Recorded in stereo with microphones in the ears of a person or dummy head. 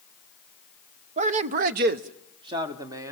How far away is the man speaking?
About 0.9 m.